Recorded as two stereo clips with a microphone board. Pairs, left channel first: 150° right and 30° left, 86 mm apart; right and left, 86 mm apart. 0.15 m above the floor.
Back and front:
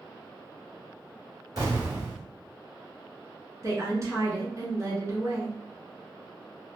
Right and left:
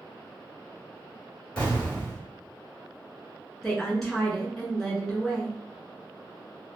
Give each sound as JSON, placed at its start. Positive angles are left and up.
{"t": 1.6, "sound": "an explosion", "azimuth_deg": -15, "distance_m": 1.7}
{"t": 3.6, "sound": "a woman speaking", "azimuth_deg": -5, "distance_m": 1.4}